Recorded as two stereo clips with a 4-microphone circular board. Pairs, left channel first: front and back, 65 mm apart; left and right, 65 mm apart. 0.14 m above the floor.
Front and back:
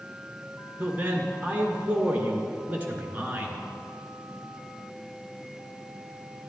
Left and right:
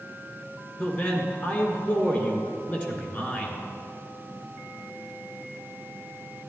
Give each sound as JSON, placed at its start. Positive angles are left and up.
{"t": 0.8, "sound": "a man speaking", "azimuth_deg": 130, "distance_m": 1.8}